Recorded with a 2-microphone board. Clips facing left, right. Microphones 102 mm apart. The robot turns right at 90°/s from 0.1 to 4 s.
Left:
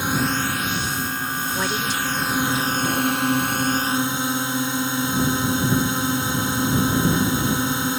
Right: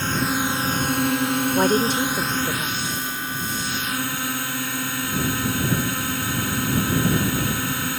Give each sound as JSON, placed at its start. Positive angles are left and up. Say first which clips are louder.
{"t": 0.0, "sound": "a drone", "louder": "left 1 dB", "azimuth_deg": 165}
{"t": 1.6, "sound": "a woman speaking", "louder": "right 7 dB", "azimuth_deg": -140}